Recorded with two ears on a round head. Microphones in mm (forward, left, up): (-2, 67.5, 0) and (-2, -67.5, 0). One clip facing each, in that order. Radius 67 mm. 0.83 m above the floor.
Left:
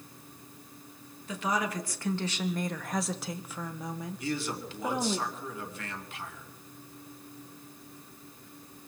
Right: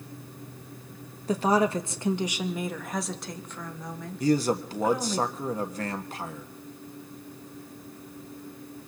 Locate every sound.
1.3 s a woman speaking: 30° right (ahead or behind), 0.9 m; by 5.2 s 20° left (ahead or behind), 2 m
4.2 s a man speaking: 35° right (ahead or behind), 1.3 m